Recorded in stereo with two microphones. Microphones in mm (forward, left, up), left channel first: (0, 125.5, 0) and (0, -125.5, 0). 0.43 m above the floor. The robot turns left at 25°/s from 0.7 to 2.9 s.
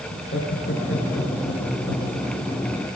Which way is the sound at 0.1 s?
130° left.